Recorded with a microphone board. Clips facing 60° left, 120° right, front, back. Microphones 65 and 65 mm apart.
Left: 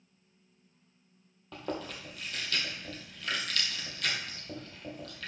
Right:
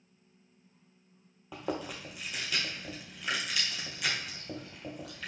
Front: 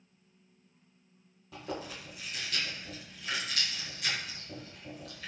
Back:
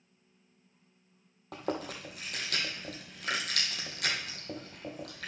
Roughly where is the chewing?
Behind.